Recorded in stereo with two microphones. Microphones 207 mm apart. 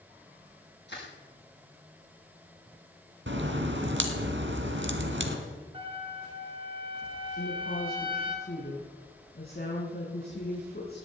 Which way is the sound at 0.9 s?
60° left (ahead or behind).